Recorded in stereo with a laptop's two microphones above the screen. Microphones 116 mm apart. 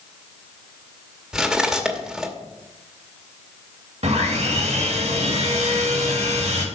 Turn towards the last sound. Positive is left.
turn(degrees=-70)  # may be behind; listen again after turning